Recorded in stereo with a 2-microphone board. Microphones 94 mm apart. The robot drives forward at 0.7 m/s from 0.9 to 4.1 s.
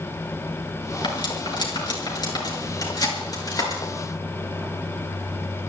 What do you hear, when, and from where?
1.0 s cutlery clinking: 55° left (ahead or behind), 5 m; by 3.8 s 40° left (ahead or behind), 6.5 m